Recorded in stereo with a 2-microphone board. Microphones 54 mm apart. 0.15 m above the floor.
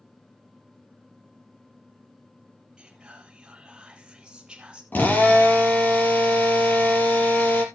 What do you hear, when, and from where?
2.8 s whispering: 20° right (ahead or behind), 3.5 m
4.9 s a drill: 35° left (ahead or behind), 3 m